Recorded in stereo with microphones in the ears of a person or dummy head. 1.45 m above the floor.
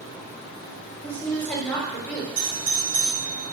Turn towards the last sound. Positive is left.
turn(degrees=-15)  # may be behind; listen again after turning